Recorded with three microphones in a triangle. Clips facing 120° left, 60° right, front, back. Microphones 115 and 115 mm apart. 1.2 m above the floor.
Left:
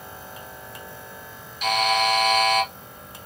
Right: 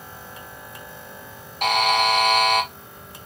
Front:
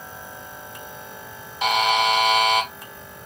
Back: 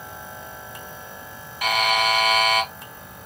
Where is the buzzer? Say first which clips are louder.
Right 2 dB, front 2 dB; 65° right, 0.9 m.